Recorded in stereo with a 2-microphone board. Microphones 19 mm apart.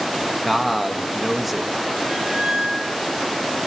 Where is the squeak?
50° right (ahead or behind), 7 m.